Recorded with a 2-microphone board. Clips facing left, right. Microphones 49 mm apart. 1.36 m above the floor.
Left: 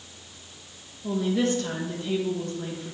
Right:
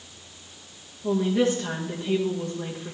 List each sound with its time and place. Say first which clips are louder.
1.0 s a woman speaking: right 2 dB; 20° right (ahead or behind), 1.1 m